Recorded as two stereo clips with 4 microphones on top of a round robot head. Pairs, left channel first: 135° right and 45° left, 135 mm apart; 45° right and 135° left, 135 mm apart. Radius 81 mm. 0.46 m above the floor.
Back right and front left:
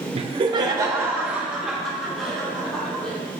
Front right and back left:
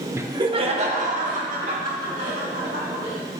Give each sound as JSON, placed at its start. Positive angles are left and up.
{"t": 0.1, "sound": "laughter", "azimuth_deg": 65, "distance_m": 1.1}